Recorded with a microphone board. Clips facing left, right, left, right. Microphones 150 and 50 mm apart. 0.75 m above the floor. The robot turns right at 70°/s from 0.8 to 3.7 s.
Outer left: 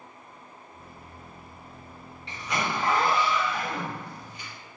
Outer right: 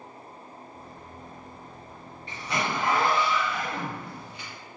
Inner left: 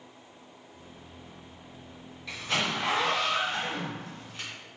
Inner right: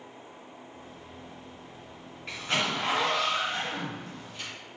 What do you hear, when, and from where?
2.3 s a zipper: 55° right, 1.6 m; by 4.5 s 45° left, 1.6 m